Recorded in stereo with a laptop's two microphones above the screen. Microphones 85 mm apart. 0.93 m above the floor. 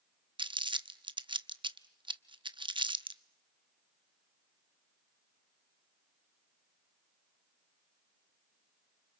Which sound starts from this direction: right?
Crumpling, at 0.4 s.